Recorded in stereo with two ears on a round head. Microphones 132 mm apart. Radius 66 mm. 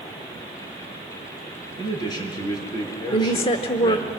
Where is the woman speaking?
40° left (ahead or behind), 1.1 m.